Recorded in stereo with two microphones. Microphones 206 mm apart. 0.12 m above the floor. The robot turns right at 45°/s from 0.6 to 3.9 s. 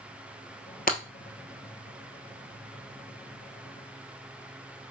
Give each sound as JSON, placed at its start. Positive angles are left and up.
{"t": 0.9, "sound": "breaking glass", "side_deg": 45, "distance_m": 1.4}